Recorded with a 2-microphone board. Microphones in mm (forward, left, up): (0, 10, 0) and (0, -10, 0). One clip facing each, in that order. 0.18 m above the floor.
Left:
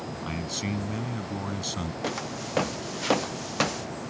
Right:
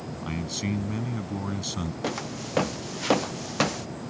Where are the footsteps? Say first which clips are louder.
Even; centre (ahead or behind).